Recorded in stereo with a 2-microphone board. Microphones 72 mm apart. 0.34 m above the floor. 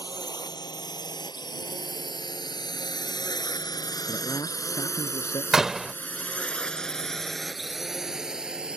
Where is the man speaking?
65° left (ahead or behind).